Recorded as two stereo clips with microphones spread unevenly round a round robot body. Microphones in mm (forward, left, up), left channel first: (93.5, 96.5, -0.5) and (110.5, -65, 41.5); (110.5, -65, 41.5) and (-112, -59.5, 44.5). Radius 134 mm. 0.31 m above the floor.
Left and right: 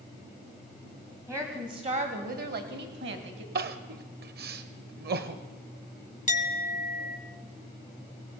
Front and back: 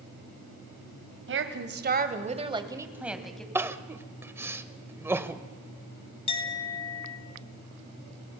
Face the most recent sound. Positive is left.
turn(degrees=65)